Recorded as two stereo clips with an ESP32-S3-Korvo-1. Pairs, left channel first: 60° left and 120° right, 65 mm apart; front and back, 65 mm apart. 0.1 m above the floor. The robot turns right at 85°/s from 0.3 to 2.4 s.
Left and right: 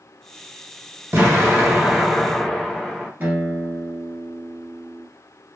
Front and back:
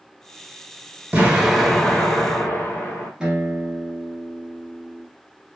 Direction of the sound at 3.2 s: 115° right.